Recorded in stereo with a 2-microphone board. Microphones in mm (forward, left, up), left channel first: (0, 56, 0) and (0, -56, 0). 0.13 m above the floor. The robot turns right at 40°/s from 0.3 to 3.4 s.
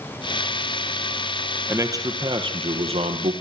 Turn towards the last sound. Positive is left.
turn(degrees=-85)